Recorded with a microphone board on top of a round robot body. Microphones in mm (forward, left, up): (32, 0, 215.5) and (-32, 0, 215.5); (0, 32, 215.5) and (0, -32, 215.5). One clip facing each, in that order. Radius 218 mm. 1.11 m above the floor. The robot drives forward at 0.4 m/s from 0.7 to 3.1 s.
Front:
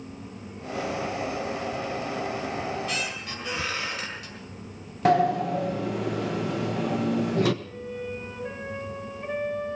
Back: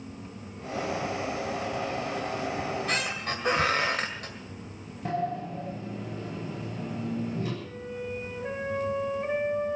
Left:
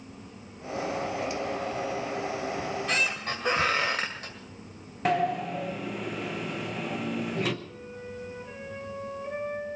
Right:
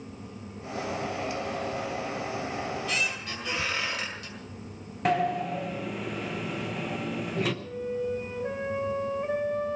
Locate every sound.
2.6 s a squeak: 135° left, 2 m
5.0 s a sliding door: straight ahead, 1.3 m
7.6 s a flute: 105° right, 3.5 m